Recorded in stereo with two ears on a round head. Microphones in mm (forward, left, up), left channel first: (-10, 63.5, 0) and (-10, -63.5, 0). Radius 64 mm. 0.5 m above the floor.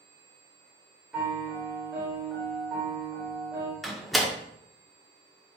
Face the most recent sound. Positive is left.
turn(degrees=0)  # may be behind; listen again after turning